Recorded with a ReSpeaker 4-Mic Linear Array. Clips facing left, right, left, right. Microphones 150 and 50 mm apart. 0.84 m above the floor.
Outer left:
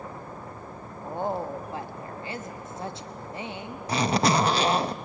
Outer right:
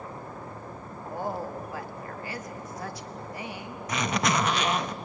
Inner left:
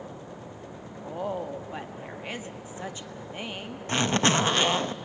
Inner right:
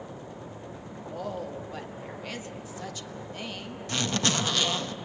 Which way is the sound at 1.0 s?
25° left (ahead or behind).